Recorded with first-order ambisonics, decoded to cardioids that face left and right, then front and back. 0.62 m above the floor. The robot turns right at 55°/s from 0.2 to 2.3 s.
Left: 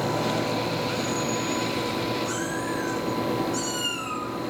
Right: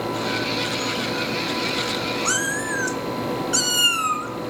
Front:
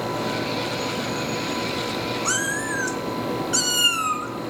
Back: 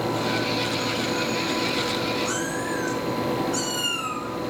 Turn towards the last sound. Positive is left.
turn(degrees=-55)